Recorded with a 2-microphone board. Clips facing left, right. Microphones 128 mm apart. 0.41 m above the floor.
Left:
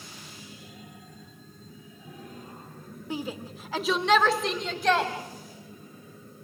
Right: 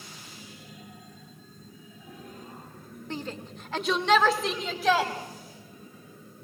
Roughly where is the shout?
Centre.